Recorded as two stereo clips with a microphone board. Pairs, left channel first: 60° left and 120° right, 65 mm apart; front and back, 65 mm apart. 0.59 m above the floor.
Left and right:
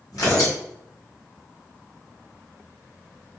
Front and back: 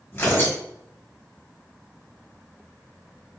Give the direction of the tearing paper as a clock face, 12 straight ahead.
10 o'clock.